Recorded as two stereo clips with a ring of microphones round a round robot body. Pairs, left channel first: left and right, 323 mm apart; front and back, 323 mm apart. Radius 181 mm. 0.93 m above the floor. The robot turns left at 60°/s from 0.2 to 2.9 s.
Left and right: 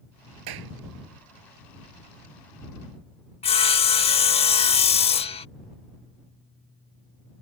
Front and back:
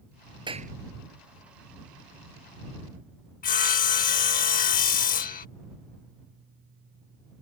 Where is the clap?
105° right; by 0.7 s 120° right.